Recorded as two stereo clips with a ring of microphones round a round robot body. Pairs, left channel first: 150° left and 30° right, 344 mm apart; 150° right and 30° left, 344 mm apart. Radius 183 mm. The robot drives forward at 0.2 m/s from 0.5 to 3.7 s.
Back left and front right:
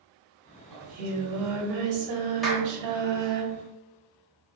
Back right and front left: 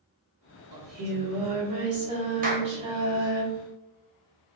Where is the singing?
30° right, 1.3 m; by 3.4 s 45° right, 1.0 m.